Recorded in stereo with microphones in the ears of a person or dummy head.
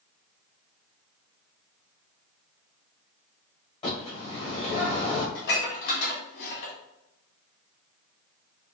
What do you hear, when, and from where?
3.8 s a bird: 35° left (ahead or behind), 2.0 m
5.3 s dishes clattering: 55° left (ahead or behind), 1.6 m